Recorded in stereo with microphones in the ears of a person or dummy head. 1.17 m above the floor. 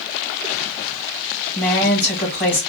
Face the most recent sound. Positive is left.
turn(degrees=40)  # may be behind; listen again after turning